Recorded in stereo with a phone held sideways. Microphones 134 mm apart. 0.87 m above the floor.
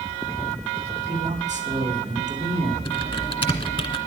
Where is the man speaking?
65° right (ahead or behind), 1.8 m.